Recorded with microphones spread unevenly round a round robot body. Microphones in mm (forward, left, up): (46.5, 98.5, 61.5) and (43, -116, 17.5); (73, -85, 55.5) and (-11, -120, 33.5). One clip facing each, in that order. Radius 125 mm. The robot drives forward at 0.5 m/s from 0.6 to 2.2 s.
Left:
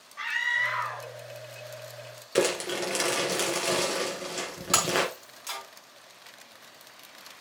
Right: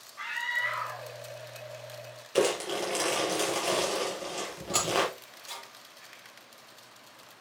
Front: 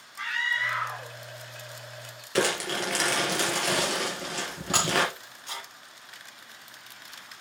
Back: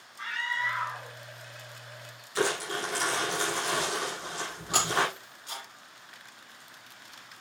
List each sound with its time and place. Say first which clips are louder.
0.2 s a scream: left 2 dB, front 2 dB; 55° left, 2 m; by 1.1 s 60° left, 2 m
2.4 s crumpling: left 1 dB, front 2 dB; 25° left, 3.5 m
4.7 s breaking glass: left 1 dB, front 1 dB; 90° left, 4 m